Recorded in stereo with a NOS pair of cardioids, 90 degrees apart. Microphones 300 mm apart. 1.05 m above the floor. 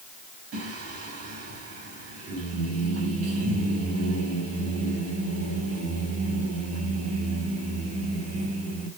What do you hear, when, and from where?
0.5 s singing: 55° right, 5.5 m